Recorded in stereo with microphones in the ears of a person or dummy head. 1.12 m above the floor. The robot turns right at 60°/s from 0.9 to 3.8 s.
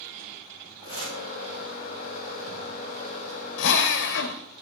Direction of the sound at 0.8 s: 25° left (ahead or behind).